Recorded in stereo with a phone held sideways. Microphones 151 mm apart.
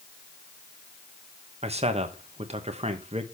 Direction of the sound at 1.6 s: 45° right (ahead or behind).